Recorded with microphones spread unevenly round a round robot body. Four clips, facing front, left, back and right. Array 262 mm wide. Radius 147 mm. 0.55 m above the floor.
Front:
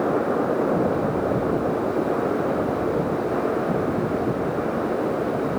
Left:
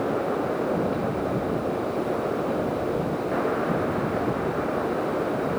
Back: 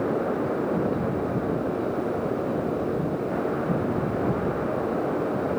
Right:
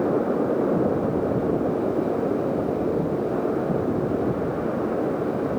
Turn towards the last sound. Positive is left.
No sound to turn to.